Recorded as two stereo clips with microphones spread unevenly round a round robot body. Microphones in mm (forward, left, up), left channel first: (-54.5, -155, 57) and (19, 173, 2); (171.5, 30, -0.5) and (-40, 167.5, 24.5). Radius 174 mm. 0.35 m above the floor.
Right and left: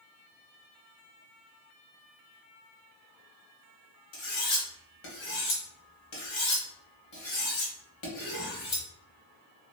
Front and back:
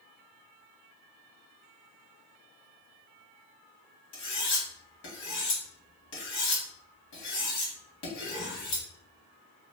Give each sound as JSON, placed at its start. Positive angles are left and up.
{"t": 4.1, "sound": "cutlery clinking", "azimuth_deg": -50, "distance_m": 1.3}